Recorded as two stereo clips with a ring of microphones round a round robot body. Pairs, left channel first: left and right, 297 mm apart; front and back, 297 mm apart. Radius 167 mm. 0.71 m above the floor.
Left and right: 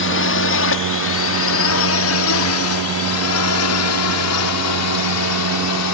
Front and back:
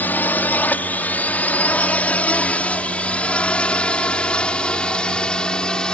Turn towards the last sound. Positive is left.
turn(degrees=85)